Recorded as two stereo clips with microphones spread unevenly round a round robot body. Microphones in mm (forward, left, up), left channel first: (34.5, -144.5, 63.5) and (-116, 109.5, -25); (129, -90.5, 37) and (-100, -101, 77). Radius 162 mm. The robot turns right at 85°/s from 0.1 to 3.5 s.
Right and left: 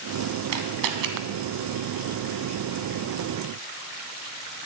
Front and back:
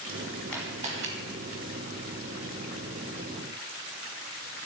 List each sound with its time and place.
0.5 s a camera shutter: 85° left, 1.2 m; by 1.1 s 135° left, 1.2 m